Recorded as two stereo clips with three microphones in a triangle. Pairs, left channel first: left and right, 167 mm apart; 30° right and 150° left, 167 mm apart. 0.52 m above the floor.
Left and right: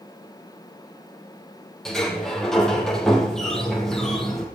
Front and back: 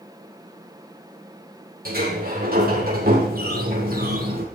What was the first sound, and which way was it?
A sliding door, 175° left.